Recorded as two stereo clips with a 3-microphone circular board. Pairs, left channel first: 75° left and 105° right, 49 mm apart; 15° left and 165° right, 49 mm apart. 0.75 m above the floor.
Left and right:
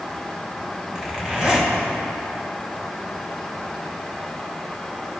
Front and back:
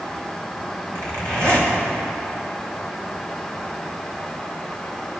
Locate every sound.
0.9 s a zipper: straight behind, 1.9 m